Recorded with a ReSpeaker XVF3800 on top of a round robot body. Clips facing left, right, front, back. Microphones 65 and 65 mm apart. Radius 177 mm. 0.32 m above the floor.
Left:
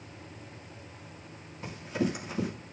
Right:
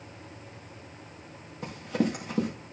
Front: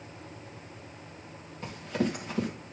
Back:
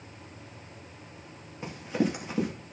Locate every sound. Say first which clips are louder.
1.6 s running footsteps: right 3 dB, back 2 dB; 100° right, 4.5 m